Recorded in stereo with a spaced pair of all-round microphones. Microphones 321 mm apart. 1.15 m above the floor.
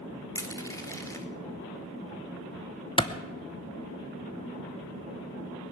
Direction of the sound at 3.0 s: 15° left (ahead or behind).